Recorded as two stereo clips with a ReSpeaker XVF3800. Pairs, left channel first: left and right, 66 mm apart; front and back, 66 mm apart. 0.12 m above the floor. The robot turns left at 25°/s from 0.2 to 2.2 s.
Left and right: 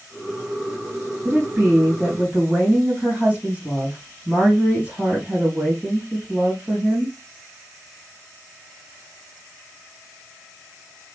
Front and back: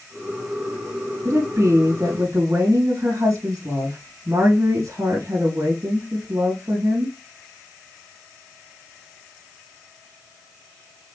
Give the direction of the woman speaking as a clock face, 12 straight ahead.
5 o'clock.